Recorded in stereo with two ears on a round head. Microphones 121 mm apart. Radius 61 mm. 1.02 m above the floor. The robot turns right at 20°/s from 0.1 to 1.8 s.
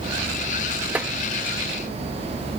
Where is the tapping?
10° right (ahead or behind).